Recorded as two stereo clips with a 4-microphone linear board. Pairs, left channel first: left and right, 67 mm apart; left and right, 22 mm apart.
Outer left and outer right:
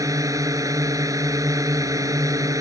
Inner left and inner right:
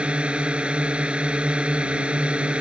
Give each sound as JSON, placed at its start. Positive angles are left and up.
{"t": 0.0, "sound": "a drone", "side_deg": -55}